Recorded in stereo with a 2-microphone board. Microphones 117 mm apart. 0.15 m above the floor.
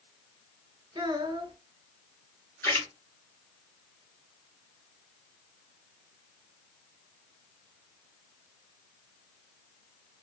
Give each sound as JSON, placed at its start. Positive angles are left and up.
{"t": 0.9, "sound": "a child speaking", "side_deg": -40, "distance_m": 0.8}
{"t": 2.6, "sound": "a splash", "side_deg": 20, "distance_m": 2.5}